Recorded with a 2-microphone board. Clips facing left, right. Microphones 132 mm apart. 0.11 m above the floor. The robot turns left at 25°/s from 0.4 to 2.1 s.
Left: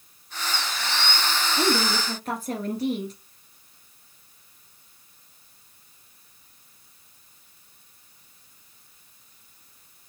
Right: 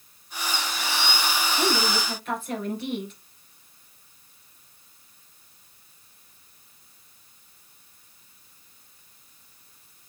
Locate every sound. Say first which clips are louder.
1.6 s a woman speaking: left 3 dB; 35° left (ahead or behind), 1.7 m; by 3.1 s 40° left (ahead or behind), 1.7 m